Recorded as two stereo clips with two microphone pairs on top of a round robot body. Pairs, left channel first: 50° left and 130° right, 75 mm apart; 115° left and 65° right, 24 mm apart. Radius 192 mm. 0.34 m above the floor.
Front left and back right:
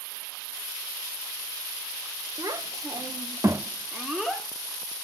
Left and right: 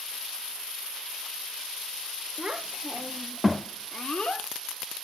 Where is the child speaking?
100° right, 1.9 m; by 4.5 s 135° left, 1.6 m.